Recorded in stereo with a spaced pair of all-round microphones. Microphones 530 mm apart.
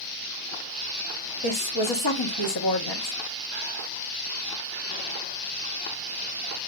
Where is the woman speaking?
50° left (ahead or behind), 1.0 m.